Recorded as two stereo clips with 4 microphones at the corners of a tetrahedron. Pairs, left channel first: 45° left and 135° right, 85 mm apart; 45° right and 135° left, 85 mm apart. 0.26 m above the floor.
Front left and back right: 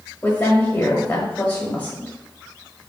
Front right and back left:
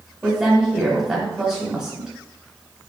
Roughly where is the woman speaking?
Left.